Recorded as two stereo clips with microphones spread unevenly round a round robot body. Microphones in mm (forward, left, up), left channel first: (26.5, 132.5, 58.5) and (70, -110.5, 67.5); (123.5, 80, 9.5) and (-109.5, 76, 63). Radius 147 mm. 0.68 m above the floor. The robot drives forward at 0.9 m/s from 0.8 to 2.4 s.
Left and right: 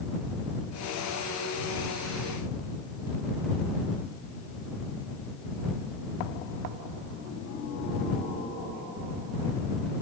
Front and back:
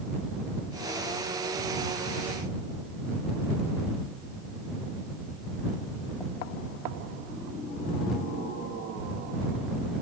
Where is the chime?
No chime in this recording.